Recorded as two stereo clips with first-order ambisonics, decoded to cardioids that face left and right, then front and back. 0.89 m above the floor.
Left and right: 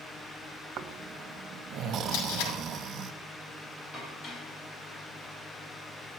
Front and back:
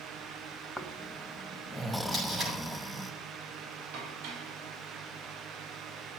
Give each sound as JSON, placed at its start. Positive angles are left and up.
{"t": 0.8, "sound": "snoring", "azimuth_deg": -90, "distance_m": 1.1}
{"t": 2.1, "sound": "tape being pulled", "azimuth_deg": 105, "distance_m": 6.5}
{"t": 3.9, "sound": "dishes clattering", "azimuth_deg": 160, "distance_m": 4.0}